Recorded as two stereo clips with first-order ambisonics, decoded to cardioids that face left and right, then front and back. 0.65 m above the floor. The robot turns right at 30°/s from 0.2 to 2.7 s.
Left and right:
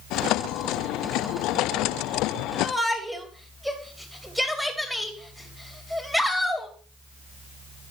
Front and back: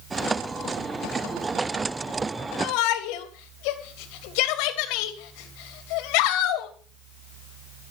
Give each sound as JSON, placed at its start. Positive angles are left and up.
{"t": 2.6, "sound": "a shout", "azimuth_deg": -5, "distance_m": 3.0}